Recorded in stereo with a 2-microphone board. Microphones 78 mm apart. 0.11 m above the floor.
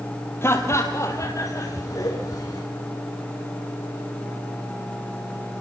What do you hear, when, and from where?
0.4 s laughter: 30° left (ahead or behind), 3 m; by 2.6 s 50° left (ahead or behind), 6 m